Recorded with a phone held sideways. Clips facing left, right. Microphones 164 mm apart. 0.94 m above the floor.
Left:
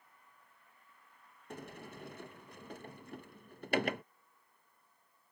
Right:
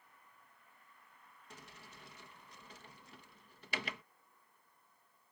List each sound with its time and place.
1.5 s a sliding door: 55° left (ahead or behind)